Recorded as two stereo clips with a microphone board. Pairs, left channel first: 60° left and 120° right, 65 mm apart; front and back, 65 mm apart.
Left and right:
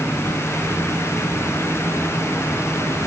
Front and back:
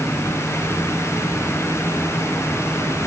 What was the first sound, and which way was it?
Only background noise.